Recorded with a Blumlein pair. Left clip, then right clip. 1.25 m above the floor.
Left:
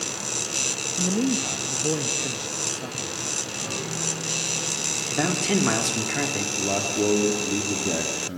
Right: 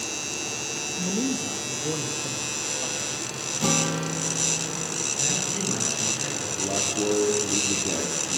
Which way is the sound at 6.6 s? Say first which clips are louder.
Left 1 dB; 10° left.